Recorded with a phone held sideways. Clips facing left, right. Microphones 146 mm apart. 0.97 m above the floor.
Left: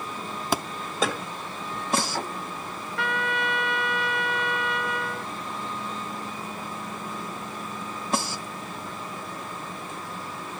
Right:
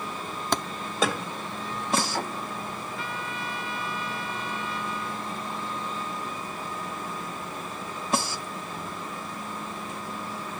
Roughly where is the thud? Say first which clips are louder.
Left 1 dB; centre.